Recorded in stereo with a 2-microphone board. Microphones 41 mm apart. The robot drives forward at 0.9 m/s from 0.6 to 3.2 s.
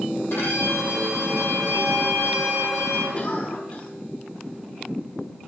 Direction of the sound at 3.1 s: 35° left (ahead or behind).